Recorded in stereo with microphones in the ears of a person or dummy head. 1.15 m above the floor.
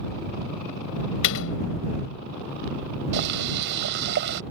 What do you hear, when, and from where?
1.2 s a door slam: 65° left (ahead or behind)
3.1 s boiling: 65° right (ahead or behind)